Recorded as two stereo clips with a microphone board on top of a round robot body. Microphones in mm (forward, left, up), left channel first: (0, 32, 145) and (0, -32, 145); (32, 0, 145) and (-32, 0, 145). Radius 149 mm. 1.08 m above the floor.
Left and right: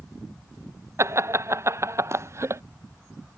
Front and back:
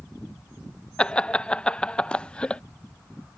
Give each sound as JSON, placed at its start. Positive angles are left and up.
{"t": 1.0, "sound": "laughter", "azimuth_deg": -70}